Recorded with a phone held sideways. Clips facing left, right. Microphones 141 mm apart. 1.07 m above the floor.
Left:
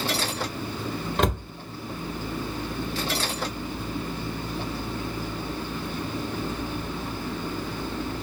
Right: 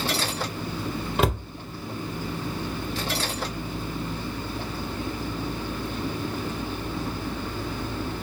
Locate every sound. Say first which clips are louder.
1.2 s a cupboard door: right 1 dB; 5° right (ahead or behind), 0.5 m